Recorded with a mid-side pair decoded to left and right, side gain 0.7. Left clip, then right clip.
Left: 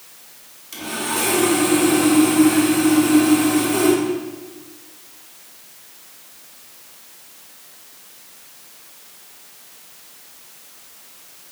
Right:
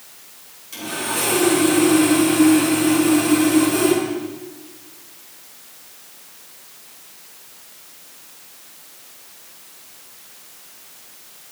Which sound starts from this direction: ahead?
Sawing, at 0.7 s.